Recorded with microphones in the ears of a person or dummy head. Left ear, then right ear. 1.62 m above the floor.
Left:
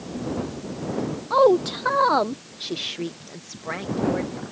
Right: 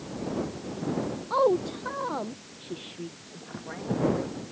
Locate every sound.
1.3 s a woman speaking: 15° left (ahead or behind); by 4.4 s 65° left (ahead or behind)